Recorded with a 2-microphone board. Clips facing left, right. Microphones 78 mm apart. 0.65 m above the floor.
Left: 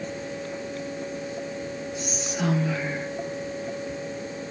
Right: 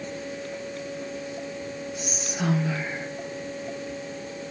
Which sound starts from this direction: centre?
Whispering, at 2.0 s.